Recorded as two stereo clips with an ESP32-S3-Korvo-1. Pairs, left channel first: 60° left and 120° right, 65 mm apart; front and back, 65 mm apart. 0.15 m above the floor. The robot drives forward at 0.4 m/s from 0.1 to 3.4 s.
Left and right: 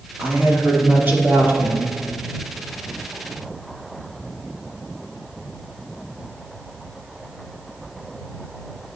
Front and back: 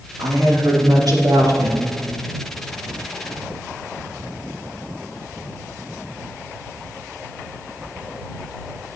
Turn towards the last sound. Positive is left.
turn(degrees=-175)